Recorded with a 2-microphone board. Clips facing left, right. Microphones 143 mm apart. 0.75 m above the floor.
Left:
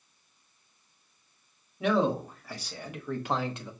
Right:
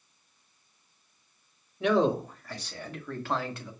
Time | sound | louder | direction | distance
1.8 | a man speaking | right 2 dB | 5° left (ahead or behind) | 1.8 m